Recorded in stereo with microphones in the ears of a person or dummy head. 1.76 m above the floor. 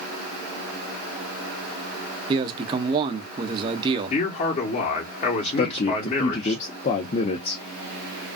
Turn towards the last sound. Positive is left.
turn(degrees=35)  # may be behind; listen again after turning